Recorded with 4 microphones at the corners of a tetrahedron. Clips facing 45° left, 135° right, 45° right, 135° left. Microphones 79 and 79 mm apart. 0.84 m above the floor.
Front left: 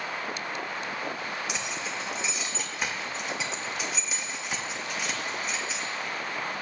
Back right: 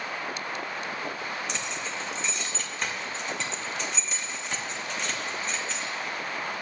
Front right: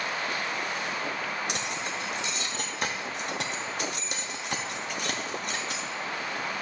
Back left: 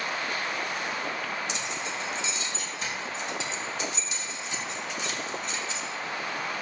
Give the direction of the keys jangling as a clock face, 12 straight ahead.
1 o'clock.